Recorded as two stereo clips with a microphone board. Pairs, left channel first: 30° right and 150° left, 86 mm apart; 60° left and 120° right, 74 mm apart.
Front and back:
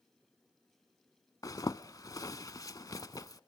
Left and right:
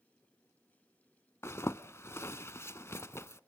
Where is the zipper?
10° left, 0.6 m.